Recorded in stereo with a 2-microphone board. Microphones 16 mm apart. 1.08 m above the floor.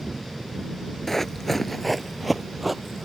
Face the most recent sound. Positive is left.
turn(degrees=-5)  # may be behind; listen again after turning